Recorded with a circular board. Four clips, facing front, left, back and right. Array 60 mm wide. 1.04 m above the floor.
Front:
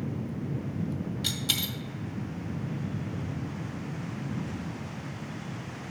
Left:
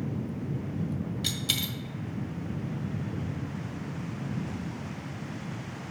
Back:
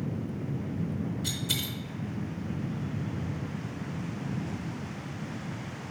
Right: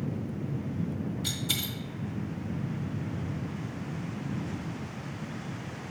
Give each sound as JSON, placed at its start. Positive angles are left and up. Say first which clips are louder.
{"t": 1.2, "sound": "a dropped coin", "louder": "left 1 dB, front 1 dB", "azimuth_deg": 50, "distance_m": 1.5}